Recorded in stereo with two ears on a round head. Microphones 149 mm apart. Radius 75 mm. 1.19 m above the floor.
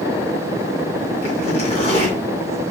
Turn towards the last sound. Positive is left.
turn(degrees=35)  # may be behind; listen again after turning